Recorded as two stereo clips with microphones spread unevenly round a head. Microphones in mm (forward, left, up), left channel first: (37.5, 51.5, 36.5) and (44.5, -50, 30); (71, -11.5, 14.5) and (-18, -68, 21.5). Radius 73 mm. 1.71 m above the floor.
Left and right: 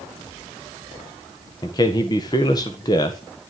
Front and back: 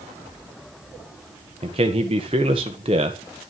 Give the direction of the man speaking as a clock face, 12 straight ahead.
7 o'clock.